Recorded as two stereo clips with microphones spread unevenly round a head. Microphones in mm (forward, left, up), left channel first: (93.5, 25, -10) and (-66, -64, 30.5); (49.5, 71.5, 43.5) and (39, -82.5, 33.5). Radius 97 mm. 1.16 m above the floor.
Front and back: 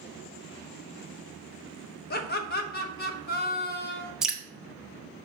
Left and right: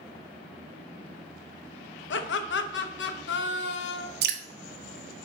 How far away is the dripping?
About 0.9 m.